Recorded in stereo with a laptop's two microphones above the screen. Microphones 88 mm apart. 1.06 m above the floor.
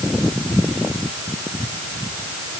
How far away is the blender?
I don't hear a blender.